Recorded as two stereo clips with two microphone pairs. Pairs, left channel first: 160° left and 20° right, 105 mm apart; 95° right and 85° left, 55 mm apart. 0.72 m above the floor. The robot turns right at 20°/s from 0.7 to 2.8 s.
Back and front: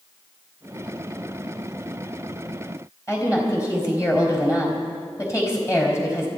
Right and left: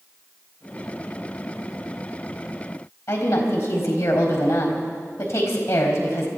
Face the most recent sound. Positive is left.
turn(degrees=-135)